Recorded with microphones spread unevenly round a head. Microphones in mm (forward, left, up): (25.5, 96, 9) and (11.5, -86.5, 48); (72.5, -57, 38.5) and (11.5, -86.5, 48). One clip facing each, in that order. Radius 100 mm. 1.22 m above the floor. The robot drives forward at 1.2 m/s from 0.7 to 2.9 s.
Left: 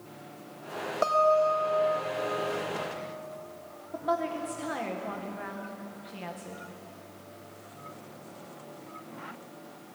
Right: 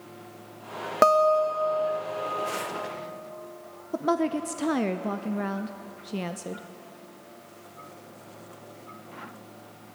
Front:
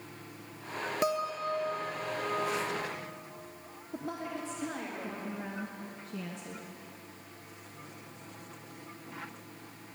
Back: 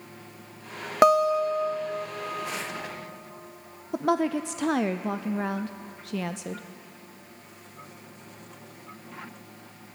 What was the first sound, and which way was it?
A guitar, 125° right.